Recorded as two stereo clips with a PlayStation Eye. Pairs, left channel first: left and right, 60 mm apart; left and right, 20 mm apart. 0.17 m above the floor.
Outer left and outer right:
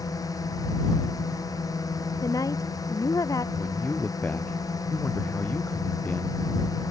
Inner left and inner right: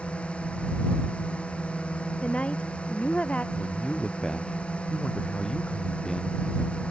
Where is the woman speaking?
75° left (ahead or behind).